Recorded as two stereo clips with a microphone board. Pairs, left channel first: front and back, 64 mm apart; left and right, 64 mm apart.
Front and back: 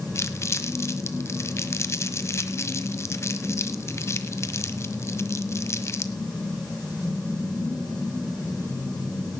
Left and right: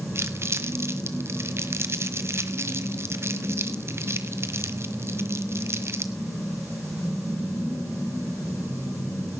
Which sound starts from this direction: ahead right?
Crumpling, at 0.1 s.